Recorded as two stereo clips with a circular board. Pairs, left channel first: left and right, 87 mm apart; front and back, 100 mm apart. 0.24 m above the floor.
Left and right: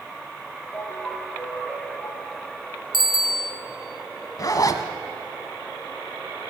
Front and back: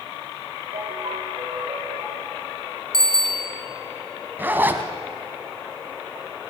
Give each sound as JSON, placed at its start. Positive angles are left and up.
{"t": 0.7, "sound": "a ringtone", "azimuth_deg": 150, "distance_m": 8.0}
{"t": 2.9, "sound": "a bicycle bell", "azimuth_deg": -85, "distance_m": 2.0}
{"t": 4.4, "sound": "a zipper", "azimuth_deg": 115, "distance_m": 1.4}